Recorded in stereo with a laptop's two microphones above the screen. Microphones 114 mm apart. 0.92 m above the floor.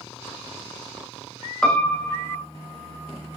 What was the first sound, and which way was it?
A piano, 5° left (ahead or behind).